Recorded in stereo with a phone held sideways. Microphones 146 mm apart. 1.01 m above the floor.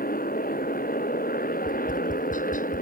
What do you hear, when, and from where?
0.0 s a motorcycle: 85° left
1.6 s tapping: 70° left (ahead or behind)